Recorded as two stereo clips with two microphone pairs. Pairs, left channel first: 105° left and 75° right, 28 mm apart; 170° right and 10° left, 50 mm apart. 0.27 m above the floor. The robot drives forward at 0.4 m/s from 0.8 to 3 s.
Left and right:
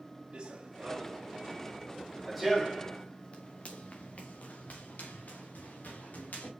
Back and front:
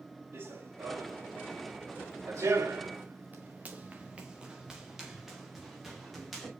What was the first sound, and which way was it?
Running footsteps, 20° right.